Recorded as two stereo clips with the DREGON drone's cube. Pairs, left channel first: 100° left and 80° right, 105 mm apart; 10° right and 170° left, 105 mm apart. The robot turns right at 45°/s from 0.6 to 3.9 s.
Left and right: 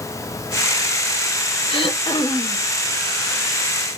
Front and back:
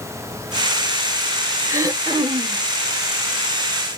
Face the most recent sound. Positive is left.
turn(degrees=-150)